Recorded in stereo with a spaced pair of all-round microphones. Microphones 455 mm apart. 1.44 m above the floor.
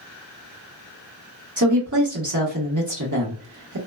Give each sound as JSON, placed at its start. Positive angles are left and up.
{"t": 1.6, "sound": "a woman speaking", "side_deg": -40, "distance_m": 1.2}